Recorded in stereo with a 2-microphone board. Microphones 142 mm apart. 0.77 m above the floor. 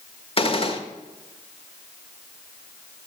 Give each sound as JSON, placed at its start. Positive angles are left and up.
{"t": 0.4, "sound": "a gunshot", "side_deg": 45, "distance_m": 1.2}